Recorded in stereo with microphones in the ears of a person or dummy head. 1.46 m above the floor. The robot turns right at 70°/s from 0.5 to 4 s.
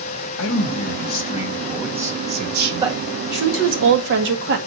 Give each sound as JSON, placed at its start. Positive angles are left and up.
{"t": 0.4, "sound": "a man speaking", "azimuth_deg": 85, "distance_m": 1.3}
{"t": 2.8, "sound": "a woman speaking", "azimuth_deg": -155, "distance_m": 1.8}